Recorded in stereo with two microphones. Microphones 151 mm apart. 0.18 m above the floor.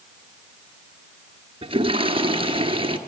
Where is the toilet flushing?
35° right (ahead or behind), 1.5 m.